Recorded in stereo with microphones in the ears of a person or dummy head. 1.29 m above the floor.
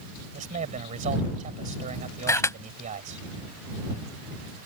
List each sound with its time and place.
0.3 s a man speaking: 40° right (ahead or behind)
2.3 s a camera shutter: 15° left (ahead or behind)